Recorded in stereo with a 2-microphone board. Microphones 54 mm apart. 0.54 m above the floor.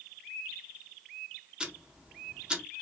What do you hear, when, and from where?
1.6 s ticking: 15° right (ahead or behind), 0.6 m